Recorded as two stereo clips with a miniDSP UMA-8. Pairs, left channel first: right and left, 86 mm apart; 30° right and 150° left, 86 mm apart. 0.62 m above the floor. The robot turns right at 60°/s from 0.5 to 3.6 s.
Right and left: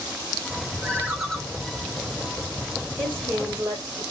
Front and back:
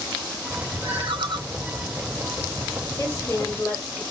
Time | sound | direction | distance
0.8 | a ringtone | 155° left | 1.8 m
3.0 | a woman speaking | 5° left | 1.6 m